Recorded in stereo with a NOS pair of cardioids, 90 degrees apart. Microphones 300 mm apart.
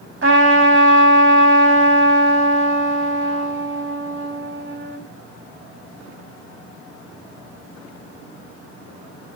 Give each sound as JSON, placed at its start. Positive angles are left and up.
{"t": 0.2, "sound": "a trumpet", "azimuth_deg": -45, "distance_m": 4.5}